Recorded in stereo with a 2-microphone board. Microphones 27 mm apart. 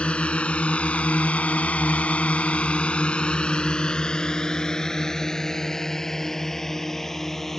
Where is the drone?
55° left (ahead or behind); by 7.6 s 5° left (ahead or behind).